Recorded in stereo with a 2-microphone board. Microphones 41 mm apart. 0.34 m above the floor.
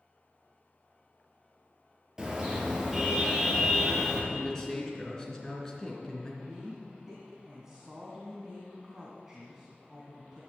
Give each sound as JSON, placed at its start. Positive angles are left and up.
{"t": 2.2, "sound": "a car horn", "side_deg": -15, "distance_m": 3.5}
{"t": 4.3, "sound": "a man speaking", "side_deg": 15, "distance_m": 3.5}
{"t": 6.4, "sound": "a woman speaking", "side_deg": -15, "distance_m": 2.5}